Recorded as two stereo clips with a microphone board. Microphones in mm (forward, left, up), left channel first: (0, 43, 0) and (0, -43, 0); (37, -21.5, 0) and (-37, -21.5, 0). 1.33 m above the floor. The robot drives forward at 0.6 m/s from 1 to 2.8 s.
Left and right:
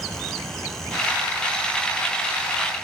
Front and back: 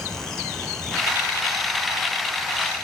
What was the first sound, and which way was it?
Only background noise.